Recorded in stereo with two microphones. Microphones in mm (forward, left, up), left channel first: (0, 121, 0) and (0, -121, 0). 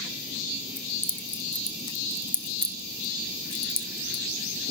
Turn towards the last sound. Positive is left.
turn(degrees=20)  # may be behind; listen again after turning